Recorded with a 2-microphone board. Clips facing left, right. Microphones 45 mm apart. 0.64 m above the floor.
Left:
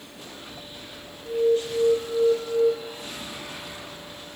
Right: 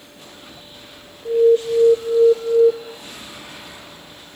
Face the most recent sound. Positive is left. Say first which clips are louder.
# right 8 dB
turn(degrees=-50)  # may be behind; listen again after turning